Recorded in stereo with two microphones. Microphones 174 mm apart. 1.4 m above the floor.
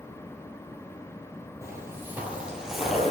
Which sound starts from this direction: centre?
Footsteps, at 1.6 s.